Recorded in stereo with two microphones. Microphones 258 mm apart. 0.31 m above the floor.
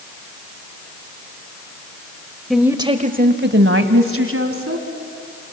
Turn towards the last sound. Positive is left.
turn(degrees=-60)  # may be behind; listen again after turning